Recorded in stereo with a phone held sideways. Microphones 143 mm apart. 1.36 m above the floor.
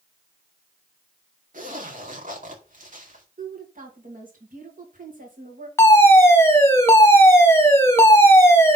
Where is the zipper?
65° right (ahead or behind), 2 m.